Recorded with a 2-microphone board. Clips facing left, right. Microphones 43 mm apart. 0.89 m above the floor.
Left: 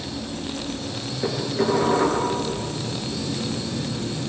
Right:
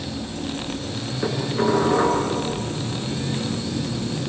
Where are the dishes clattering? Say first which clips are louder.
Right 1 dB; 75° right (ahead or behind), 7.5 m.